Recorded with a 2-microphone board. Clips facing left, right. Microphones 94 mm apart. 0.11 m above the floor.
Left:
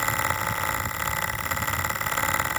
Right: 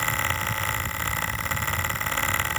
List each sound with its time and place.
Only background noise.